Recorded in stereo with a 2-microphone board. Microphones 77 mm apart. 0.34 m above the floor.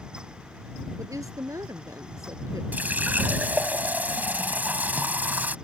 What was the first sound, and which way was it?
A woman speaking, 45° right (ahead or behind).